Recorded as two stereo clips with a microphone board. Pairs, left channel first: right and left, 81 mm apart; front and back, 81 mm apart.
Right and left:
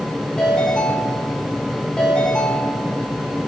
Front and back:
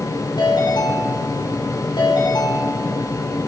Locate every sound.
0.4 s a ringtone: 10° right, 8 m